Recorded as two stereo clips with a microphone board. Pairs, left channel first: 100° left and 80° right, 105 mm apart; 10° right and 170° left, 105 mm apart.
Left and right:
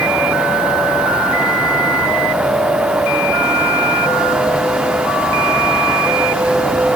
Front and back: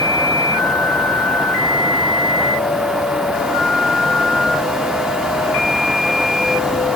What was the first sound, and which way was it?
Only background noise.